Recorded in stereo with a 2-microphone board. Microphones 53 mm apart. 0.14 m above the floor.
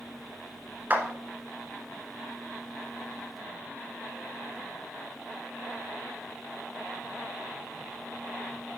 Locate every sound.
0.9 s a clap: 35° right (ahead or behind), 1.5 m